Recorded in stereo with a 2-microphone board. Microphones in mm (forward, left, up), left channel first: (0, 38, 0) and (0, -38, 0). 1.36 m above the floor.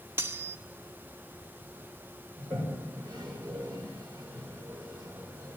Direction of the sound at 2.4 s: 70° right (ahead or behind).